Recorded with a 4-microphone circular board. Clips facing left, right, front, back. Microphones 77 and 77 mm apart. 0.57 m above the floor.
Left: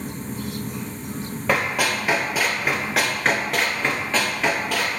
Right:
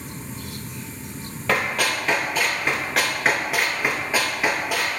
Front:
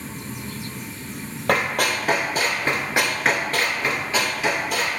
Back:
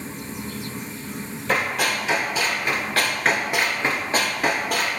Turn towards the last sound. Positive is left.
turn(degrees=-165)